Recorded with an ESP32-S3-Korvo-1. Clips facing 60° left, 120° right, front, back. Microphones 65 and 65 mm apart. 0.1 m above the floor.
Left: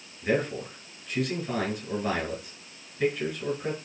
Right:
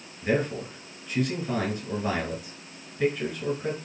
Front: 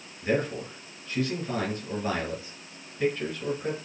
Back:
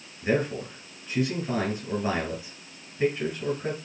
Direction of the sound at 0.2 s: 160° left.